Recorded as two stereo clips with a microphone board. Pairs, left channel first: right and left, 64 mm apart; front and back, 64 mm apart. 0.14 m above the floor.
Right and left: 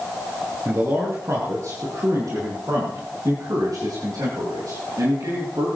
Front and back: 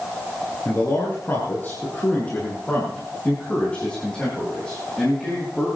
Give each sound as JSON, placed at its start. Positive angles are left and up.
{"t": 0.7, "sound": "a man speaking", "azimuth_deg": 45, "distance_m": 4.5}